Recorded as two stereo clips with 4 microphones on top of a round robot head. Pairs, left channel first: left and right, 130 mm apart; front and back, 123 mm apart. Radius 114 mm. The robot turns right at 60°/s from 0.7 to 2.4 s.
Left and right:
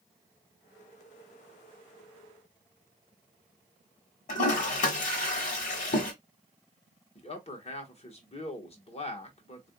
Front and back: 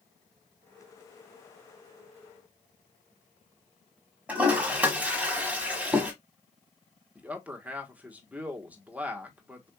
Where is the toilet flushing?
100° left, 1.2 m.